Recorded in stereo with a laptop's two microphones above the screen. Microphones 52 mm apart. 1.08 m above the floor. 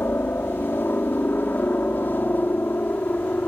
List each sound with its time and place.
0.0 s a helicopter: 45° left (ahead or behind); by 3.5 s 35° left (ahead or behind)